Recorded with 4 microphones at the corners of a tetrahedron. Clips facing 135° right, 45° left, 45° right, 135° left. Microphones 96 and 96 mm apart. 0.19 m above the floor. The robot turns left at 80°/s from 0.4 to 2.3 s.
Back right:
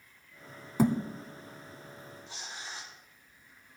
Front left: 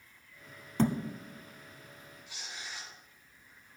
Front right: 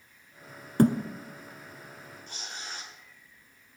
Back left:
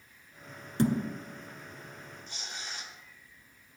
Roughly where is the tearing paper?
Right.